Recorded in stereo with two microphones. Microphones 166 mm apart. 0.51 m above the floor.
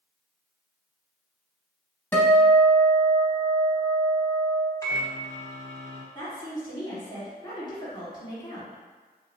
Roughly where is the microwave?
Centre.